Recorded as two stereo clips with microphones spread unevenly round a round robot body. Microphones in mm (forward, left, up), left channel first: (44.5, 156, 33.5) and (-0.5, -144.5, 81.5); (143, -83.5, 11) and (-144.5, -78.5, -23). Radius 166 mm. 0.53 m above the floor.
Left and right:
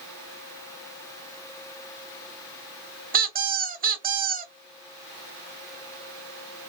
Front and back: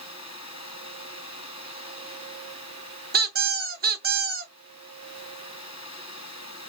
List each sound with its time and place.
3.1 s a squeak: 160° right, 0.8 m